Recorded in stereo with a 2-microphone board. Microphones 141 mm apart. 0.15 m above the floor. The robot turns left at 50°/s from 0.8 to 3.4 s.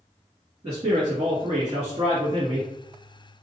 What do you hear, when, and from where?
0.6 s a man speaking: 45° right, 1.7 m; by 2.7 s 140° right, 1.7 m